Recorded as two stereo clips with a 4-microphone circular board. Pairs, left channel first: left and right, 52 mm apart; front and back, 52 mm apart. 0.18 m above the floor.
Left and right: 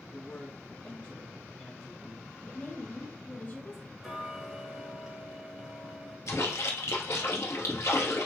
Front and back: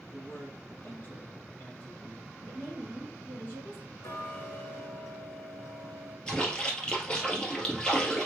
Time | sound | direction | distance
0.1 | a man speaking | 35° left | 1.8 m
2.4 | a woman speaking | 50° left | 2 m
4.0 | ticking | 10° right | 2.0 m
6.3 | a splash | 75° left | 2 m